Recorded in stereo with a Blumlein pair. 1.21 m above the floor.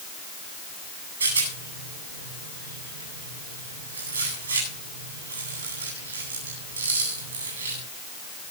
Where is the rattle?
70° right, 9.5 m.